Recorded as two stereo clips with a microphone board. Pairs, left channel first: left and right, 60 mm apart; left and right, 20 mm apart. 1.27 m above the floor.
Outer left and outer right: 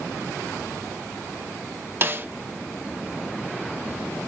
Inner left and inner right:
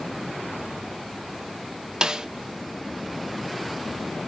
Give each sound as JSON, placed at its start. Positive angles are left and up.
{"t": 2.0, "sound": "a snare drum", "side_deg": -35, "distance_m": 0.7}